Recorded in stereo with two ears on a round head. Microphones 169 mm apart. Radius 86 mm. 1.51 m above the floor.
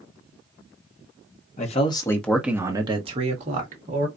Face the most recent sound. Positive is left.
turn(degrees=-45)  # may be behind; listen again after turning